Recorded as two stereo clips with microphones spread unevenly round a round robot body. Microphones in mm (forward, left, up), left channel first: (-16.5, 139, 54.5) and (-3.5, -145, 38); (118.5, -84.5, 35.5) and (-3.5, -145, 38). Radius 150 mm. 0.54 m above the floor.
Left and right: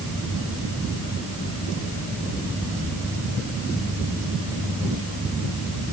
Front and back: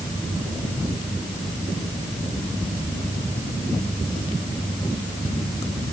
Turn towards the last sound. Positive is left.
No sound to turn to.